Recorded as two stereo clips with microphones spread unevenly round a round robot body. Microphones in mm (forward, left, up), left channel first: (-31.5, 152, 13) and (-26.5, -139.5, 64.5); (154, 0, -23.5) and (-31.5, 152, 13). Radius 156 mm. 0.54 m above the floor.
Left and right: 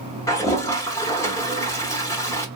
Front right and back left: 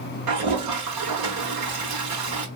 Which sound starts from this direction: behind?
A toilet flushing, at 0.3 s.